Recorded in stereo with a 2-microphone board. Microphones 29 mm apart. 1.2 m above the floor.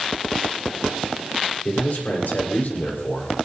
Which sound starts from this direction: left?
A man speaking, at 1.6 s.